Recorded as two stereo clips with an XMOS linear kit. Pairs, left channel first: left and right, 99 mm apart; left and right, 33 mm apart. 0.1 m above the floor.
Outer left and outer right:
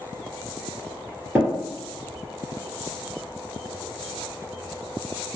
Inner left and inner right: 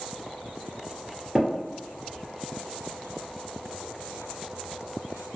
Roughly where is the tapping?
Centre.